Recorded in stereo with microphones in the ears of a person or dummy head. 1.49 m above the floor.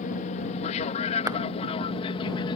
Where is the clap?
15° right (ahead or behind).